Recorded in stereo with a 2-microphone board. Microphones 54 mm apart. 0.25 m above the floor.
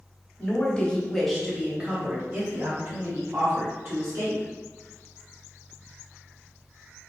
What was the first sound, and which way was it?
A woman speaking, 30° left (ahead or behind).